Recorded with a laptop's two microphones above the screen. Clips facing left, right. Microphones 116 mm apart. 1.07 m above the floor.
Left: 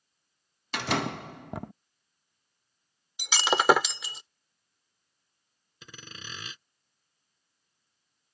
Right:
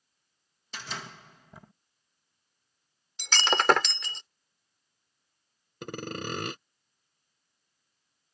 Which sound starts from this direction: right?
Sawing, at 5.8 s.